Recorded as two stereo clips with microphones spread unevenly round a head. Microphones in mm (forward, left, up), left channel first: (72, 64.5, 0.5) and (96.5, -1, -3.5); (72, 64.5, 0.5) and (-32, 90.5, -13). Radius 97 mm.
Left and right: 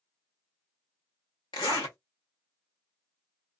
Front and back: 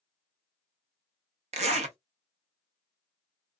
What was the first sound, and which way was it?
A zipper, 165° left.